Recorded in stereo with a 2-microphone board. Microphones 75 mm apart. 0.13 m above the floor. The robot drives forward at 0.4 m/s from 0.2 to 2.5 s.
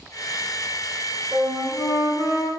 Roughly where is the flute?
Centre.